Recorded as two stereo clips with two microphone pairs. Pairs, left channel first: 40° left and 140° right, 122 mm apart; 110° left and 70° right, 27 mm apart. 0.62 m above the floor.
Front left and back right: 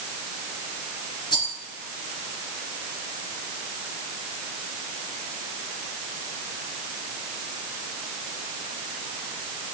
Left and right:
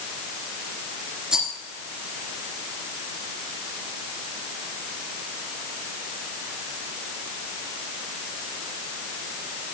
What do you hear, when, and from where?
1.3 s a rattle: 10° right, 3 m